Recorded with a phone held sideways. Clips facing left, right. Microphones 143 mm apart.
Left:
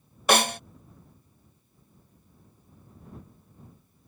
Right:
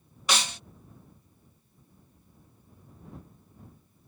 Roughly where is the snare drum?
Left.